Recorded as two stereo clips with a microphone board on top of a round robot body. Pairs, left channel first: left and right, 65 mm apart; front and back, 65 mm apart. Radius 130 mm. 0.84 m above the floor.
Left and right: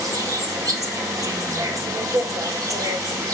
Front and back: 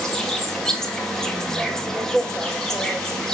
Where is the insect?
80° right, 2.5 m.